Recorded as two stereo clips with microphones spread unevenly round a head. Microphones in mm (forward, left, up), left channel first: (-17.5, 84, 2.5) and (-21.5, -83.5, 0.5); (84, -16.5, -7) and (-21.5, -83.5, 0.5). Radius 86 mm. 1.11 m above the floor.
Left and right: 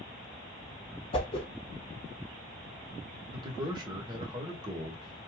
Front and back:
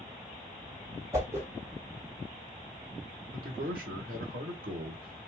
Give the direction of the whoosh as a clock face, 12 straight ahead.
7 o'clock.